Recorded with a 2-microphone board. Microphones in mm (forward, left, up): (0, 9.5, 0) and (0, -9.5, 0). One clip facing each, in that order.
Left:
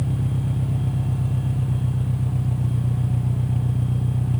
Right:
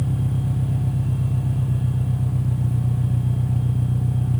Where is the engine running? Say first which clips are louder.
Right 1 dB; 10° left (ahead or behind).